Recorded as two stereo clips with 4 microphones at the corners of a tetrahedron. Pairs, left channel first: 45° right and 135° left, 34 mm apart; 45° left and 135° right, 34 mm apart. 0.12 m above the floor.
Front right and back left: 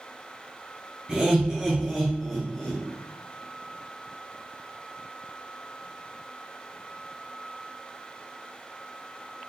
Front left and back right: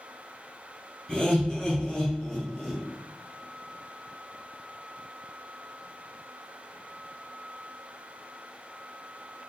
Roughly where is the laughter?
Left.